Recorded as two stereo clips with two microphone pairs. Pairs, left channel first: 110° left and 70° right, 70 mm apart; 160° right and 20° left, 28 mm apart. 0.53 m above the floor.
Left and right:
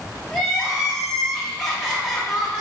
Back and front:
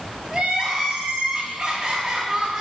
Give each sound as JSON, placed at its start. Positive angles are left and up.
{"t": 0.3, "sound": "crying", "azimuth_deg": 15, "distance_m": 1.3}